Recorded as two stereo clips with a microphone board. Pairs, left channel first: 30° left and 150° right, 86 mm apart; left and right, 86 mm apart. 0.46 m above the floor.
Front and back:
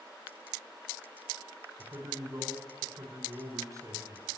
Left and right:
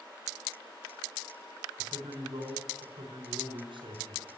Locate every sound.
1.8 s a man speaking: 95° right, 3.5 m